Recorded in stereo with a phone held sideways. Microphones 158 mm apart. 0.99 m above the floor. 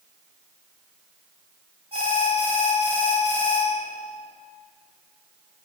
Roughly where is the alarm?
Right.